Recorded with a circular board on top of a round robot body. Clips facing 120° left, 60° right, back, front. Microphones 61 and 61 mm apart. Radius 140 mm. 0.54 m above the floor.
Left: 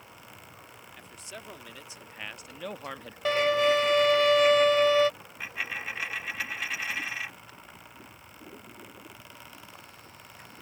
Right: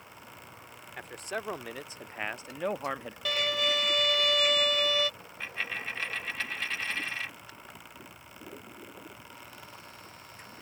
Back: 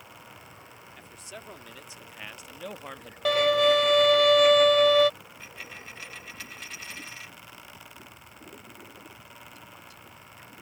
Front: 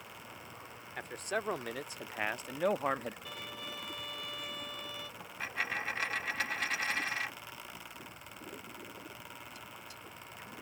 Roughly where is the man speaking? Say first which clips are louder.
Right 10 dB, front 10 dB; ahead right.